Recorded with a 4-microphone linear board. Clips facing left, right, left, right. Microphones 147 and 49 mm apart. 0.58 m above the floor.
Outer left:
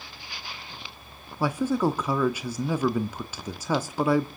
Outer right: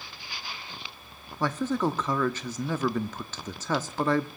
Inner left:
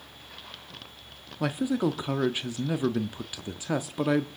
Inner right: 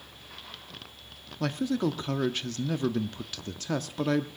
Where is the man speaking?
10° left (ahead or behind), 0.7 m.